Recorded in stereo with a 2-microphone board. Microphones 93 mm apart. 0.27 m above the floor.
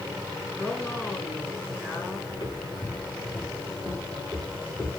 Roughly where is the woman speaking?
Left.